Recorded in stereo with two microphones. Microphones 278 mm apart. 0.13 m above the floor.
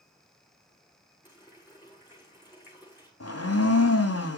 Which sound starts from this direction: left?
A blender, at 3.2 s.